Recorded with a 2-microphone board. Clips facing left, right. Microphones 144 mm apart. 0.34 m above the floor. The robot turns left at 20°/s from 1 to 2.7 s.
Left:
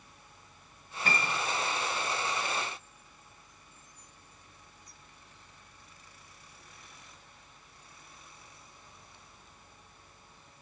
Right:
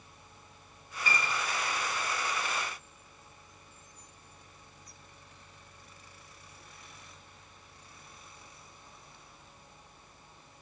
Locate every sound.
1.1 s a piano: 50° left (ahead or behind), 1.3 m; by 1.4 s 55° left (ahead or behind), 1.3 m